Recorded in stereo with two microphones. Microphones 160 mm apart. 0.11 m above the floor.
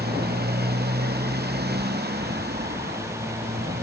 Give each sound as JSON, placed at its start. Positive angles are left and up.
{"t": 0.0, "sound": "a motorcycle", "side_deg": -80}